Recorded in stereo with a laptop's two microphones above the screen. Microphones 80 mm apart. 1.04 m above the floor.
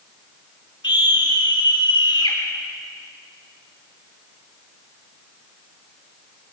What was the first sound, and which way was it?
A scream, 80° left.